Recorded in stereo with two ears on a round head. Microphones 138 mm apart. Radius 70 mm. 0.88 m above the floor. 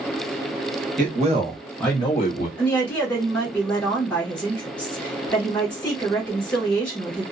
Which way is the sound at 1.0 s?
55° right (ahead or behind).